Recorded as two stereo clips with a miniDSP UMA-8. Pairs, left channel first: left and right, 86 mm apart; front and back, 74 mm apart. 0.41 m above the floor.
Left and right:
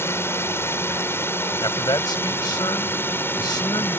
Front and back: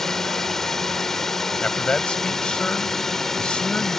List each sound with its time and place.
0.0 s a drone: 80° left; by 4.0 s 75° left
1.6 s a man speaking: 75° left